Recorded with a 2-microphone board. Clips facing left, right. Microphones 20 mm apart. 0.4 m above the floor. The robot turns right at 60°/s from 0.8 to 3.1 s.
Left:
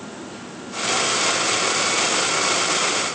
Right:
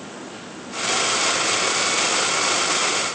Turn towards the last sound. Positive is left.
No sound to turn to.